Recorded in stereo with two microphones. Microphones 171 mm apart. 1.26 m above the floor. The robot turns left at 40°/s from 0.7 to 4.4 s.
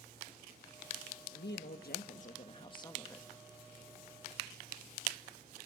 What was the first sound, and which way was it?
A woman speaking, 85° left.